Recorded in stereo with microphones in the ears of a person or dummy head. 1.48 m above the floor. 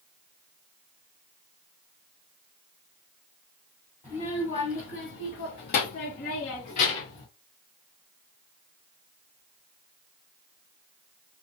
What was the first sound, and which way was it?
A child speaking, 15° left (ahead or behind).